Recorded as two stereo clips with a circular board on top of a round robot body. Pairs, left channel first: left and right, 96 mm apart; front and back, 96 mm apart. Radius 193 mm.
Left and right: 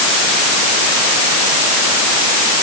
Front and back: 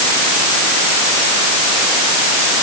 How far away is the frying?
I don't hear frying.